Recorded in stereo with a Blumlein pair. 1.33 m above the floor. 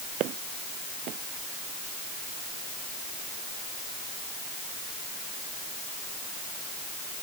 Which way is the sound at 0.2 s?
35° right.